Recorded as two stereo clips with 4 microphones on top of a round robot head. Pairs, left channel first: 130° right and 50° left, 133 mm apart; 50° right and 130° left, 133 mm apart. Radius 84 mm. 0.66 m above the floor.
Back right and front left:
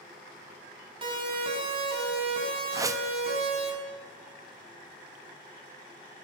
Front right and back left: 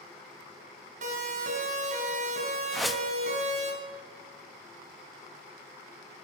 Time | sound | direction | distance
1.0 | a siren | 100° left | 4 m
2.7 | a whoosh | 40° left | 0.8 m